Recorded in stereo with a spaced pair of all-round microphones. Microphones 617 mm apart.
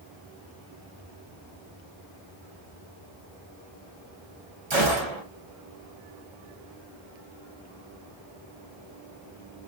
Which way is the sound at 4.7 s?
70° right (ahead or behind).